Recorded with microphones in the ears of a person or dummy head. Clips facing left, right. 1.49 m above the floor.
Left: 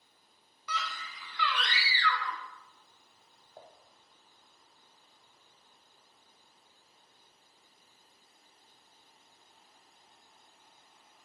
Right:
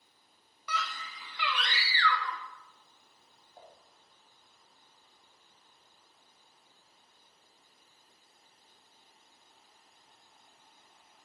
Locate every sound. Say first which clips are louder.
0.7 s a scream: right 1 dB; 40° right (ahead or behind), 0.7 m; by 2.4 s 35° left (ahead or behind), 0.8 m
3.6 s dishes clattering: left 1 dB; 40° left (ahead or behind), 0.9 m